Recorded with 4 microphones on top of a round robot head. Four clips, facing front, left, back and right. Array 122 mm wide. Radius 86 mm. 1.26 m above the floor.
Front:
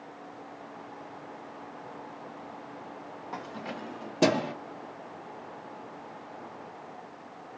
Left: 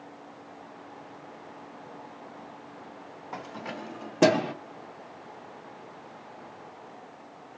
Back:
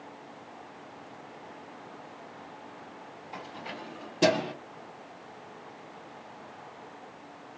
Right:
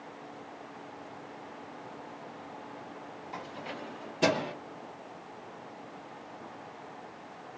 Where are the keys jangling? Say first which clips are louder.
Left 4 dB, front 2 dB; 45° left, 1.1 m; by 4.5 s 75° left, 0.6 m.